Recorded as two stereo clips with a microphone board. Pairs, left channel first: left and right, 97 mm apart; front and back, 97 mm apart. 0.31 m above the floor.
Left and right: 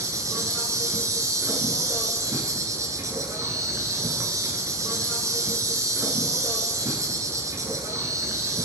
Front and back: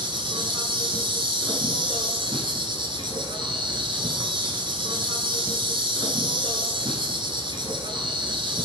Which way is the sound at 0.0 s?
145° right.